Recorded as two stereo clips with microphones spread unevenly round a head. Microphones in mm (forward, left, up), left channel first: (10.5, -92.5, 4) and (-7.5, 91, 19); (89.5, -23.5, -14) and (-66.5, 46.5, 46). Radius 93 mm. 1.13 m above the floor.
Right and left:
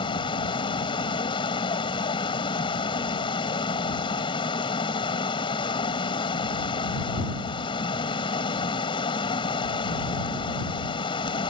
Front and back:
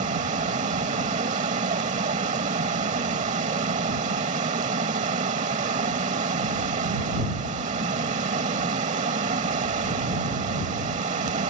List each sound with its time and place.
0.0 s running water: 150° right